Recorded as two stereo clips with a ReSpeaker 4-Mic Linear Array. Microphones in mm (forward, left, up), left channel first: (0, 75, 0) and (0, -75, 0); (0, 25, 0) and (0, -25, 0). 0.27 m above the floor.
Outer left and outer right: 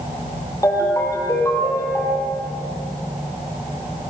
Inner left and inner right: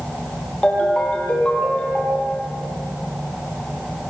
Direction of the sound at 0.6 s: 20° left (ahead or behind).